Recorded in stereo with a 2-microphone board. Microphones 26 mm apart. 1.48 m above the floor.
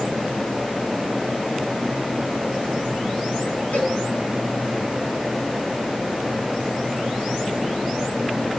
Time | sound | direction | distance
3.7 | a cowbell | 75° left (ahead or behind) | 5.5 m